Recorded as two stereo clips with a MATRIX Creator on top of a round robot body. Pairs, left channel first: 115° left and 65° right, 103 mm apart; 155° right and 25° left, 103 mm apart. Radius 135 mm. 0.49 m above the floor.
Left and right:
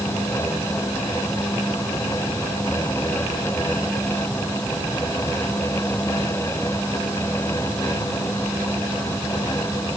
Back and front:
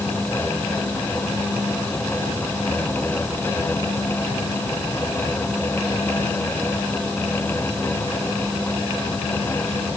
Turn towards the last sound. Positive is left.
No sound to turn to.